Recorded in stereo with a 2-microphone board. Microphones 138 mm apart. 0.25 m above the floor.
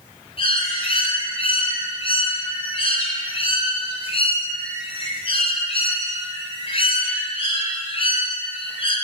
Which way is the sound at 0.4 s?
40° left (ahead or behind).